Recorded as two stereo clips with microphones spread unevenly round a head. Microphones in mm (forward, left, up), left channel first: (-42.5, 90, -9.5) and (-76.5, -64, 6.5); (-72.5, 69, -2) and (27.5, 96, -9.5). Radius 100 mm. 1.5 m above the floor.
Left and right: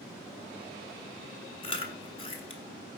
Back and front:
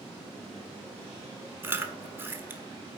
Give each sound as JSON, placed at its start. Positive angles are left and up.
{"t": 1.6, "sound": "chewing", "azimuth_deg": 65, "distance_m": 1.2}